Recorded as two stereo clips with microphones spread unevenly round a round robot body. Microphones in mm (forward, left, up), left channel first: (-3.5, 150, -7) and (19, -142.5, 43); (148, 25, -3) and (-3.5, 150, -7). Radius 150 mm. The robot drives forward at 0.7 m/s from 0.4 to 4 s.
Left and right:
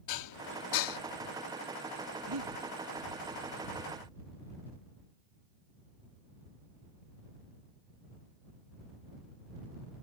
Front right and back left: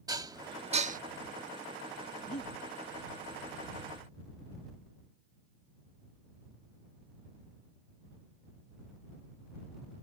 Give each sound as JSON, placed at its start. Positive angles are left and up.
{"t": 0.1, "sound": "dishes clattering", "azimuth_deg": 70}
{"t": 2.3, "sound": "breathing", "azimuth_deg": -100}